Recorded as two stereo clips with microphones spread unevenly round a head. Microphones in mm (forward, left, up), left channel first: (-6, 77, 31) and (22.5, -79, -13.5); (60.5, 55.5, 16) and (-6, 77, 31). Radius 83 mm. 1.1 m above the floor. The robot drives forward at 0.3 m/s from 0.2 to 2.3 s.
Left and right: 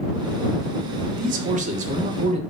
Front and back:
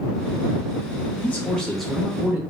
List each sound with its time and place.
1.1 s a man speaking: 75° right, 0.6 m; by 2.4 s 115° right, 0.6 m